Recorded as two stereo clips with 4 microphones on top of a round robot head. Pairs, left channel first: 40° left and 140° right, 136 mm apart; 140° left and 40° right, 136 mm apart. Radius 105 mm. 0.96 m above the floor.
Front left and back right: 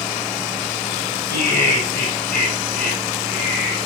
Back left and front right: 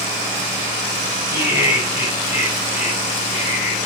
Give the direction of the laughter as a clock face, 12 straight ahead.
11 o'clock.